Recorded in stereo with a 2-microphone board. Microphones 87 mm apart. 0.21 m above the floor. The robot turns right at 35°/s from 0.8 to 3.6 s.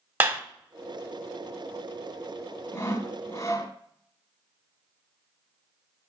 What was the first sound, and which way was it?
A clap, 20° right (ahead or behind).